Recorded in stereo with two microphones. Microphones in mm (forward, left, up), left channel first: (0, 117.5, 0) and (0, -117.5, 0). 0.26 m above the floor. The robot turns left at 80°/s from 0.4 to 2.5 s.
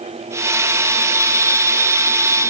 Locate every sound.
Only background noise.